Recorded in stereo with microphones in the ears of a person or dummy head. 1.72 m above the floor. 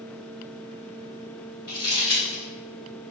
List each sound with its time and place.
1.7 s crumpling: 15° left (ahead or behind), 1.8 m